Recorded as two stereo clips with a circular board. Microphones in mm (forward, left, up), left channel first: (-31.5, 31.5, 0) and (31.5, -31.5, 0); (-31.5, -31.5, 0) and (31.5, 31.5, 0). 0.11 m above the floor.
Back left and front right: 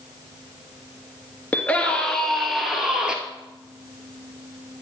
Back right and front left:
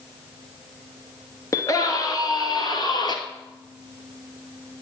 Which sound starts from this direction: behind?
A scream, at 1.5 s.